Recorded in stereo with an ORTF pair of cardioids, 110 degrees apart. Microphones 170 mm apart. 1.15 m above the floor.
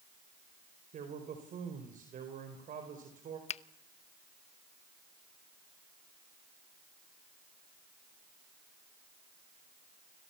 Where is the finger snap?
40° left, 0.9 m.